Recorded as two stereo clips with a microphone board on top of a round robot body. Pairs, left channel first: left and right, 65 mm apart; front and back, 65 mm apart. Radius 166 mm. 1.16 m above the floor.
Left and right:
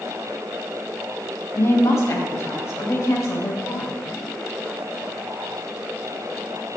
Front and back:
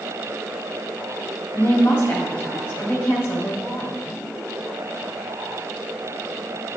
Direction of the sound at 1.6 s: 50° left.